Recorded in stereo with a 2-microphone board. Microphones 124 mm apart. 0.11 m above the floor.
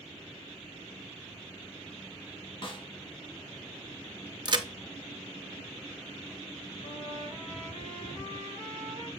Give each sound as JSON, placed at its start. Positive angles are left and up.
{"t": 2.6, "sound": "a snare drum", "side_deg": 40, "distance_m": 1.1}
{"t": 4.5, "sound": "a crack", "side_deg": -40, "distance_m": 0.6}
{"t": 6.8, "sound": "a trumpet", "side_deg": 80, "distance_m": 4.5}